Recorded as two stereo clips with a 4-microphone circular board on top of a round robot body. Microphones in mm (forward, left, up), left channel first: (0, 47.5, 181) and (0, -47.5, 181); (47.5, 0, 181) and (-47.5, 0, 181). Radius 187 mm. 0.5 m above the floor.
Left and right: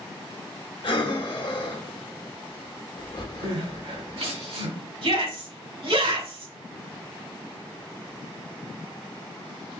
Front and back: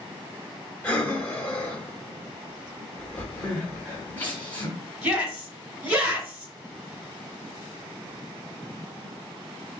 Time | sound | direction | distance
0.8 | breathing | 75° left | 1.8 m
3.4 | crying | 70° right | 1.6 m
5.0 | a shout | 100° right | 3 m